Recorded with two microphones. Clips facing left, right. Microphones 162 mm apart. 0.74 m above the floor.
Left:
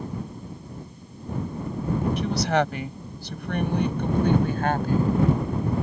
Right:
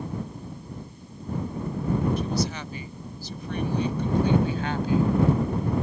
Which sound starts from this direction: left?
A woman speaking, at 2.2 s.